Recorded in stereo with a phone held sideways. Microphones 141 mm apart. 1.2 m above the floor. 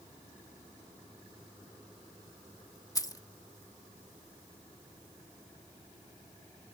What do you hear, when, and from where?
3.0 s keys jangling: 25° left (ahead or behind)